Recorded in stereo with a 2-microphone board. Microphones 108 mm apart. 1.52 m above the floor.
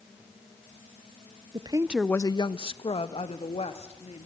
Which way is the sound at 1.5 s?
50° right (ahead or behind).